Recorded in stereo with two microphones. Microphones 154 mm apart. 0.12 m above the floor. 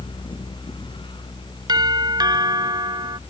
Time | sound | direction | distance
1.7 | a doorbell | 25° right (ahead or behind) | ?